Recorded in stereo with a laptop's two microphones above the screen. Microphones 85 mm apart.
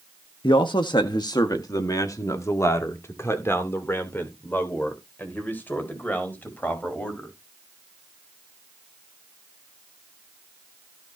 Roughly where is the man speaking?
Left.